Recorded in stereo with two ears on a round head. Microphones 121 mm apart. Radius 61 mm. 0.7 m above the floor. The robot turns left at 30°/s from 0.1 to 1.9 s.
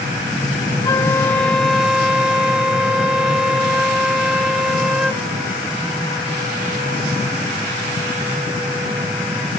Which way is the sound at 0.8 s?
25° left.